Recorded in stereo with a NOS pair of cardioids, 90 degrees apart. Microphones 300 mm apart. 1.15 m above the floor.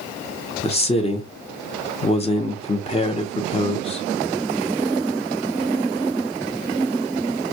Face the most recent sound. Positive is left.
turn(degrees=20)